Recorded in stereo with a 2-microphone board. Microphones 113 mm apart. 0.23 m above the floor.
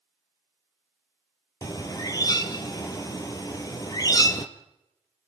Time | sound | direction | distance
1.6 | a bird | 35° left (ahead or behind) | 1.4 m